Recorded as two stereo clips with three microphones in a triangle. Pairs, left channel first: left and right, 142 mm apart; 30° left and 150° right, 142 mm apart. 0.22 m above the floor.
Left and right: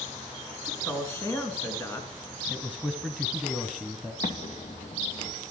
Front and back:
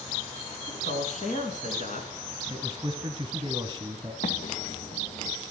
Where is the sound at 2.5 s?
170° left, 1.3 m.